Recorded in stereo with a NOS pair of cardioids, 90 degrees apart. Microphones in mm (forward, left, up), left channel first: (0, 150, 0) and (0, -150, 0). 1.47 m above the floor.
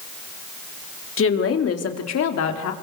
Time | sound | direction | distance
1.2 | a woman speaking | 45° left | 3.5 m